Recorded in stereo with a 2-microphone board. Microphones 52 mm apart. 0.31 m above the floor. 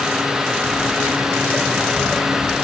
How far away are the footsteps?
About 4 m.